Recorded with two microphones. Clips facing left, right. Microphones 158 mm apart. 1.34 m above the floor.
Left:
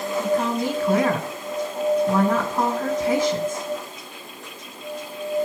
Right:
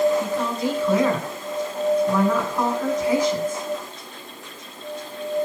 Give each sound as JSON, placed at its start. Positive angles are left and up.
{"t": 0.2, "sound": "a woman speaking", "side_deg": 25, "distance_m": 9.5}